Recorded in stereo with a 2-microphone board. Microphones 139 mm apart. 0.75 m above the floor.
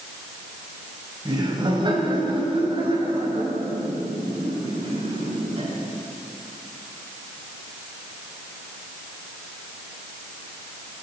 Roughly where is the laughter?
Right.